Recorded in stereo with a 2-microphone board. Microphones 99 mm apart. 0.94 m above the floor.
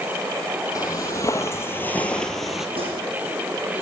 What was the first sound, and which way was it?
Footsteps, 40° left (ahead or behind).